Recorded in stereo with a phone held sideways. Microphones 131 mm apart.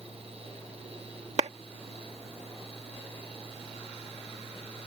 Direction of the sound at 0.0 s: 50° right (ahead or behind).